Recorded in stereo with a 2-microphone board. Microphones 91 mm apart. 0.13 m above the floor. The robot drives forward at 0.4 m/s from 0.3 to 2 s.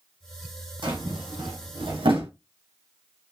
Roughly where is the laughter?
No laughter in this recording.